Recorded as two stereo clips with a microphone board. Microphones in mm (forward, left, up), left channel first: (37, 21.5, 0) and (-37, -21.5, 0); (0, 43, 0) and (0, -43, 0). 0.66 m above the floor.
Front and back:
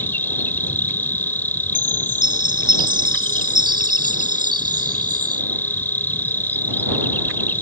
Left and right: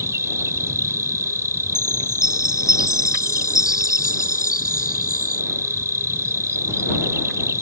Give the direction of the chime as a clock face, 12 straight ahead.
6 o'clock.